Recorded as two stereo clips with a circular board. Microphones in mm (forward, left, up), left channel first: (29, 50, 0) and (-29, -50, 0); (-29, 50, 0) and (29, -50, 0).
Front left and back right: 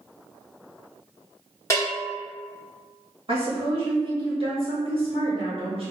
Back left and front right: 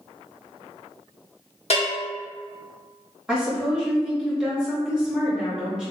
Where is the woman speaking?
140° right, 1.4 m.